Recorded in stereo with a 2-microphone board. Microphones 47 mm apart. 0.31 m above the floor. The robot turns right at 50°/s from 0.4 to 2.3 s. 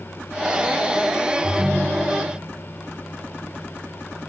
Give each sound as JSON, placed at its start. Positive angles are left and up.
{"t": 1.4, "sound": "a ringtone", "azimuth_deg": 0, "distance_m": 7.0}